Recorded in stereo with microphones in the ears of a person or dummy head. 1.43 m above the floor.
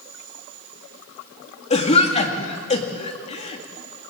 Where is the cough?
30° left (ahead or behind), 2 m.